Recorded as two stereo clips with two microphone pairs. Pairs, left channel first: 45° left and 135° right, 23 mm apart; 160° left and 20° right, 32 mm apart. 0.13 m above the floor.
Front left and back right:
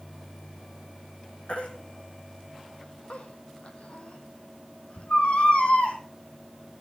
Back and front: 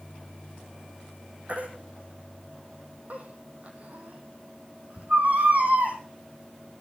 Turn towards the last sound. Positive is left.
turn(degrees=20)